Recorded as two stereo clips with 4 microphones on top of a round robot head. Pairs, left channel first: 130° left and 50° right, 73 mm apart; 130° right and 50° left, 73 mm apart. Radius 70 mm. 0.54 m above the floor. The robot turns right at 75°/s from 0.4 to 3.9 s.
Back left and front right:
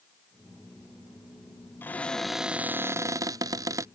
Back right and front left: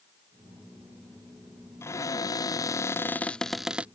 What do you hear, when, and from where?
1.8 s a cupboard door: 175° right; by 3.9 s 20° right